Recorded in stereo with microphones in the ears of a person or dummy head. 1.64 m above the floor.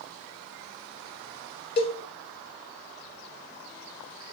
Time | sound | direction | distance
1.8 | a cowbell | 30° left (ahead or behind) | 0.5 m